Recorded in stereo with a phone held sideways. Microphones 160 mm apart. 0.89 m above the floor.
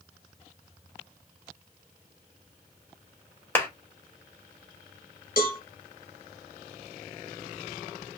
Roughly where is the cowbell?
Left.